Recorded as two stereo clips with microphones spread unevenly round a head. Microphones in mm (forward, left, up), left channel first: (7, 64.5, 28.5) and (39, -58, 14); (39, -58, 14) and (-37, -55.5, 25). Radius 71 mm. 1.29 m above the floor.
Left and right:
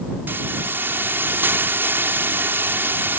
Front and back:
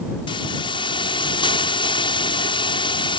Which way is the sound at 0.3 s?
Straight ahead.